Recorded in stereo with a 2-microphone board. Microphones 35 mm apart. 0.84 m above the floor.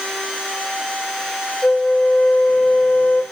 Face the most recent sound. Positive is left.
turn(degrees=75)  # may be behind; listen again after turning